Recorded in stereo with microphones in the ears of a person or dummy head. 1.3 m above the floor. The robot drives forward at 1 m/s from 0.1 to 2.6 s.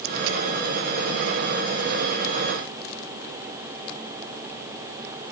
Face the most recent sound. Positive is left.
No sound to turn to.